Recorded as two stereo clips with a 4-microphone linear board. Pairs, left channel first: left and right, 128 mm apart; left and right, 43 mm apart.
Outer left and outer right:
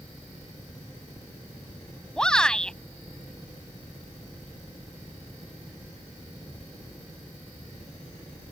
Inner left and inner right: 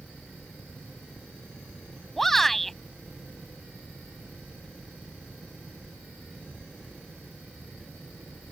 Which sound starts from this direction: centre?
A shout, at 2.2 s.